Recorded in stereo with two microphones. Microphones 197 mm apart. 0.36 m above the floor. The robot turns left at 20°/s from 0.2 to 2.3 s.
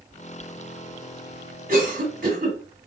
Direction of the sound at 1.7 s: 50° right (ahead or behind).